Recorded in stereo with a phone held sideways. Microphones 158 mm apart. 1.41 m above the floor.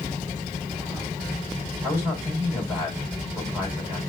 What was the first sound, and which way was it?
A man speaking, 10° right (ahead or behind).